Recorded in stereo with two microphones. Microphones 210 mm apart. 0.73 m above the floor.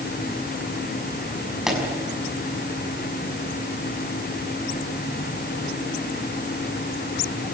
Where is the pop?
Centre (ahead or behind), 6 m.